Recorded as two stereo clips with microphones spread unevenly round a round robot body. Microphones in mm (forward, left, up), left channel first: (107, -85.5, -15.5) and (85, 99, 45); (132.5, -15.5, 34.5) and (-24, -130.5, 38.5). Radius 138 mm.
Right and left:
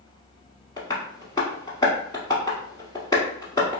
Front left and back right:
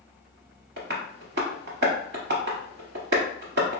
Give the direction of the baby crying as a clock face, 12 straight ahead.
No baby crying in this recording.